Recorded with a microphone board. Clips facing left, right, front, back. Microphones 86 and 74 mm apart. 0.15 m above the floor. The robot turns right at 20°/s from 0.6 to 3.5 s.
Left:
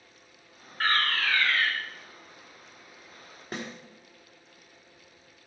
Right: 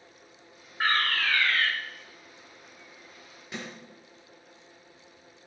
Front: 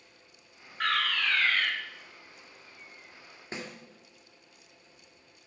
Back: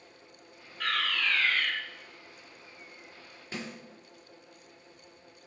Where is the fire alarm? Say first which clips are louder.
Even, front 2 dB; 15° right, 3 m; by 1.7 s straight ahead, 3 m.